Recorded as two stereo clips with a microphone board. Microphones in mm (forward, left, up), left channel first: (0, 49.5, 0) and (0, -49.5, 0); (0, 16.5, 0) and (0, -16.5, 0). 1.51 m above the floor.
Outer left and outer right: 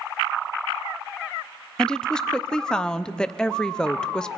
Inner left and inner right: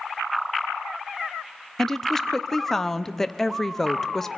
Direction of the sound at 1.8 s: 10° left (ahead or behind).